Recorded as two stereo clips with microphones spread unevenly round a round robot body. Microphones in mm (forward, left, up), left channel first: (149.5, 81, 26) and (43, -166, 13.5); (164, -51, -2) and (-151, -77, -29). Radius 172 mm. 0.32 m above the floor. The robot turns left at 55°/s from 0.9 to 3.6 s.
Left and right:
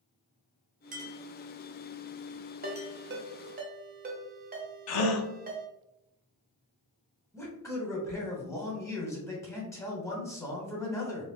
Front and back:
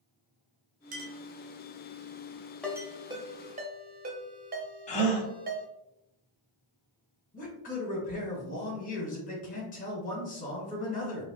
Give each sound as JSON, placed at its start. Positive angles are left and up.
{"t": 0.9, "sound": "a clink", "azimuth_deg": -145, "distance_m": 0.6}
{"t": 2.6, "sound": "a ringtone", "azimuth_deg": -85, "distance_m": 0.8}
{"t": 4.9, "sound": "a gasp", "azimuth_deg": 75, "distance_m": 0.5}
{"t": 7.3, "sound": "a man speaking", "azimuth_deg": 0, "distance_m": 1.2}